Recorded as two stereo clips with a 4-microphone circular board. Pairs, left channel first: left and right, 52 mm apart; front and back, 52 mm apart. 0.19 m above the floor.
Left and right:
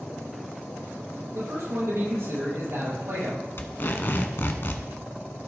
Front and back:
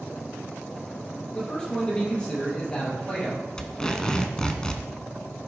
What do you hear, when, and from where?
1.3 s a man speaking: 70° right, 5 m
3.6 s tape being pulled: 70° left, 1.0 m